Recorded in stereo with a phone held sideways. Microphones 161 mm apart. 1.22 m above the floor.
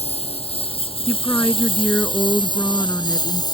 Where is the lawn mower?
40° left (ahead or behind); by 3.5 s 25° left (ahead or behind).